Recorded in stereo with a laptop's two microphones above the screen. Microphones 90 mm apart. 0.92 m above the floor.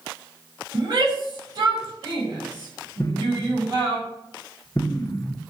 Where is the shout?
45° right (ahead or behind), 6 m.